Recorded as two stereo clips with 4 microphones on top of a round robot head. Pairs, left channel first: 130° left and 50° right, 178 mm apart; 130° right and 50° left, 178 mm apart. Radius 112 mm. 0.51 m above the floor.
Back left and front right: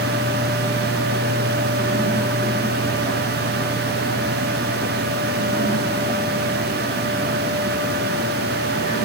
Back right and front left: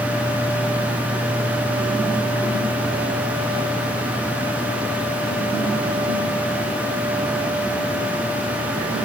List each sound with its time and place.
Only background noise.